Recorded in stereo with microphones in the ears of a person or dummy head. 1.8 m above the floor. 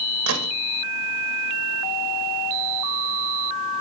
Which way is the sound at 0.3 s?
70° right (ahead or behind).